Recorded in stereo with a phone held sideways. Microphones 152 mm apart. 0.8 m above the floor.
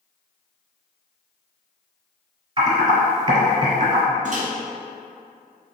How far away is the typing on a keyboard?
About 1.3 m.